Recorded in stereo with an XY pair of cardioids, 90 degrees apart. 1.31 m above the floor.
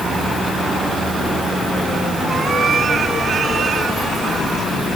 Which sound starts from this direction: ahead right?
A cat meowing, at 2.3 s.